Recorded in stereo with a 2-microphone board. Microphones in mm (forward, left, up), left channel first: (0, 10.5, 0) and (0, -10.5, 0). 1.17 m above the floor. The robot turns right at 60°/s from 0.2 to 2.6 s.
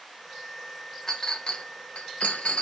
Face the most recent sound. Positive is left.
turn(degrees=60)  # may be behind; listen again after turning